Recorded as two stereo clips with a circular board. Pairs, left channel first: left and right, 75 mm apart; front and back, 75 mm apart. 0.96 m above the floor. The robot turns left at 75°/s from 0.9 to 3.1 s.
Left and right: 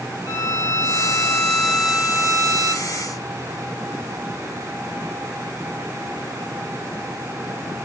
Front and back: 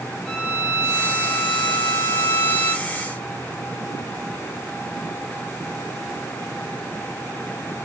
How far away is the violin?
About 1.3 m.